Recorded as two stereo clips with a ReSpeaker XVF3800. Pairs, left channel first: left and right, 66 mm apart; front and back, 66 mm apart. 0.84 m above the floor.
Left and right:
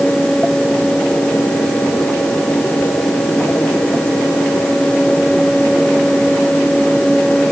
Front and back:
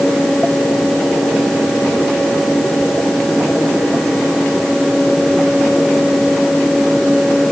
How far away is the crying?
I don't hear crying.